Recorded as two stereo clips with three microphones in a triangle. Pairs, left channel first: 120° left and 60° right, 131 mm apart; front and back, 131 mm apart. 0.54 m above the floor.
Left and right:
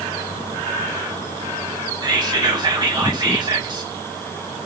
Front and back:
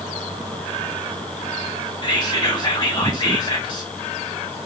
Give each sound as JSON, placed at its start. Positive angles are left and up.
{"t": 2.0, "sound": "whispering", "azimuth_deg": -30, "distance_m": 1.1}